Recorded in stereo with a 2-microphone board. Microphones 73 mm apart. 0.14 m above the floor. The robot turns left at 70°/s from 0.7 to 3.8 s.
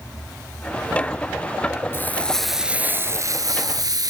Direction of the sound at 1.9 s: 35° left.